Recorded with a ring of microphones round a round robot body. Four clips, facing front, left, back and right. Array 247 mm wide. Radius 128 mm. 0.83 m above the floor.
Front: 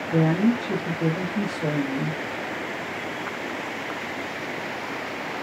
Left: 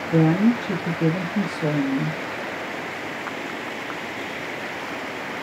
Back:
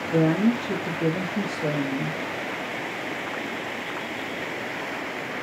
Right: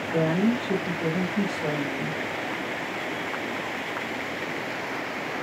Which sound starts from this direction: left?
A woman speaking, at 0.1 s.